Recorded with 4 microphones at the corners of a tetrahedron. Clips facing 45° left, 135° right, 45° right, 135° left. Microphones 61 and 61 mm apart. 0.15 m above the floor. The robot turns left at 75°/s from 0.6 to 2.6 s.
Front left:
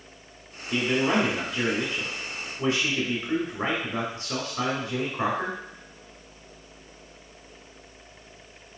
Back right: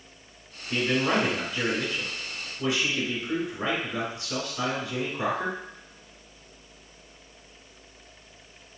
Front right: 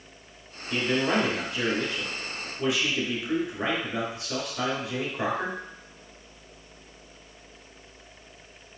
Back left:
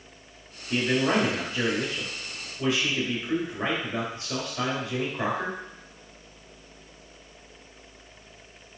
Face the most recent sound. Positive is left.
turn(degrees=35)